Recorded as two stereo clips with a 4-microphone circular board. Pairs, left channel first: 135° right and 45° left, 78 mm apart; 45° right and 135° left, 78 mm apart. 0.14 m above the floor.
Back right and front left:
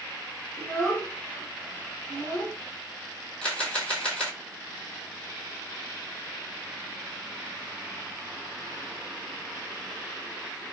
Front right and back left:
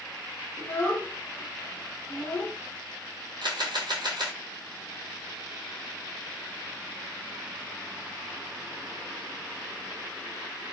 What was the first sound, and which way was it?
A child speaking, 85° right.